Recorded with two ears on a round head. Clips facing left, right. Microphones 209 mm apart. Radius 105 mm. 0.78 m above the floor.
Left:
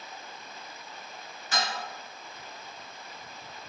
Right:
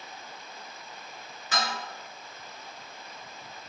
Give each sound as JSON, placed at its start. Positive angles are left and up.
{"t": 1.5, "sound": "dishes clattering", "side_deg": -70, "distance_m": 1.9}